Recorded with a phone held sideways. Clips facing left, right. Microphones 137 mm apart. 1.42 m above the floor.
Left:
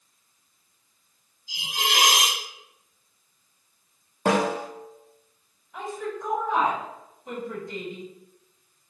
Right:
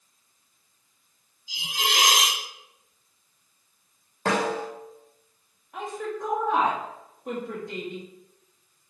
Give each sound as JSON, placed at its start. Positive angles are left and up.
{"t": 1.5, "sound": "a hiss", "side_deg": 50, "distance_m": 0.9}
{"t": 4.2, "sound": "a snare drum", "side_deg": 10, "distance_m": 0.6}
{"t": 5.7, "sound": "a woman speaking", "side_deg": -65, "distance_m": 1.6}